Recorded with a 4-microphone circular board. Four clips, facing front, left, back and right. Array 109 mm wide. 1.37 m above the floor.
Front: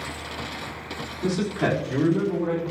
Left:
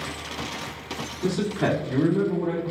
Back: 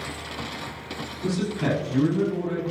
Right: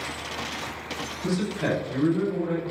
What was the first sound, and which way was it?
A man speaking, 45° left.